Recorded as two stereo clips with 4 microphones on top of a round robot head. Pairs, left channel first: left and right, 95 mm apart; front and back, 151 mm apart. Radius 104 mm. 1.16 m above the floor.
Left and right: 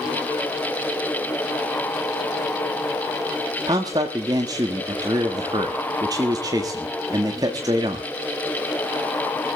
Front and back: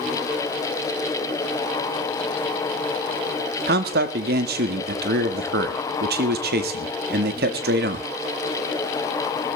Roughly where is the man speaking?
Behind right.